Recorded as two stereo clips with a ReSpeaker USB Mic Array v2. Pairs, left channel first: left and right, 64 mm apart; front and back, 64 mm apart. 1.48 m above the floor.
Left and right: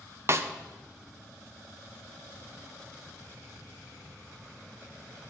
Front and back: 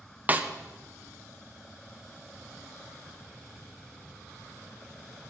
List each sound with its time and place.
0.3 s a snare drum: 125° right, 0.5 m